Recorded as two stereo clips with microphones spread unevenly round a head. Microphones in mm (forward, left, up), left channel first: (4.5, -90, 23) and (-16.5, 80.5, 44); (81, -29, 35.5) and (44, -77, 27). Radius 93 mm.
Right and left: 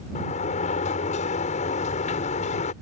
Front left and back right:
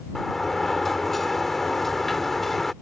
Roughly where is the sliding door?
Ahead right.